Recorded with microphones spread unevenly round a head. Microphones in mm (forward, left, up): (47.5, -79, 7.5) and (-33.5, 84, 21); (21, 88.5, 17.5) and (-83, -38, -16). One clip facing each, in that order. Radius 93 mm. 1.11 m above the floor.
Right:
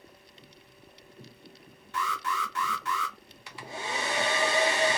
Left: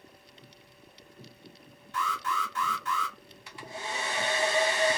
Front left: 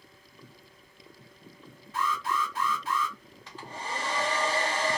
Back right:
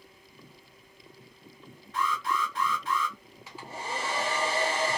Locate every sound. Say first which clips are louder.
1.9 s an alarm: even, even; 35° right, 1.2 m
3.5 s a hair dryer: right 2 dB, back right 1 dB; 40° right, 0.5 m